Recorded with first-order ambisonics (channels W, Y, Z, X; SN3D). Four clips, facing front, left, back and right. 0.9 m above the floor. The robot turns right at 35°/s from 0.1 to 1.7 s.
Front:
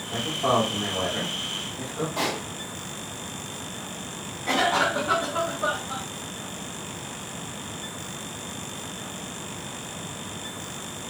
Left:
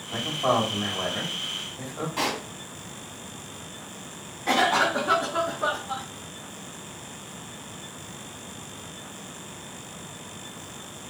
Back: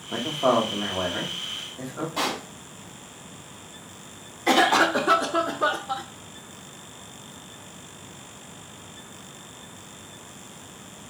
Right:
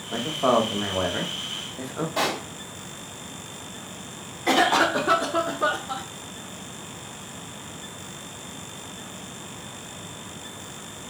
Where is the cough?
145° right, 0.5 m.